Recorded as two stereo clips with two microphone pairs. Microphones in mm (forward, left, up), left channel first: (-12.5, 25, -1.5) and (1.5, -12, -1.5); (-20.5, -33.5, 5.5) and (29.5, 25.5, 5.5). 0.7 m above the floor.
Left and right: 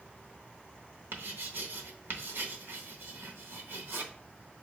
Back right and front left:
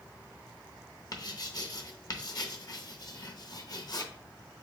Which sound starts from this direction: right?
Writing, at 1.1 s.